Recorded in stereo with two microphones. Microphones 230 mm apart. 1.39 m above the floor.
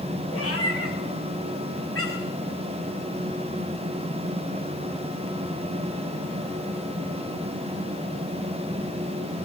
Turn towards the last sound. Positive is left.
turn(degrees=65)  # may be behind; listen again after turning